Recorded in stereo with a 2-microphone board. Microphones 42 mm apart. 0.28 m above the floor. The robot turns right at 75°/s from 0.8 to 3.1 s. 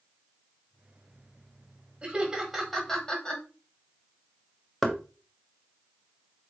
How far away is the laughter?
About 1.2 m.